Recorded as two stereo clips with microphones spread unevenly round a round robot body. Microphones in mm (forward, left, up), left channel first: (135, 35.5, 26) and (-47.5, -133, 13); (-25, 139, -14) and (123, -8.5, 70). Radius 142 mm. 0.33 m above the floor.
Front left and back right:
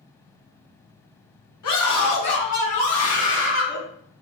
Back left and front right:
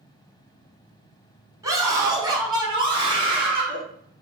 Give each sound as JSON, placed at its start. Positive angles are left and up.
{"t": 1.6, "sound": "a scream", "azimuth_deg": 40, "distance_m": 4.0}